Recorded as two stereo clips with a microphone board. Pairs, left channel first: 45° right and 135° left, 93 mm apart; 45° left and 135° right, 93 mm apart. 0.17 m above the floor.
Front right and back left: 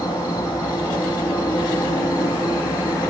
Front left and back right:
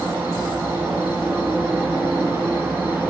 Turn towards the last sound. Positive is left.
turn(degrees=-70)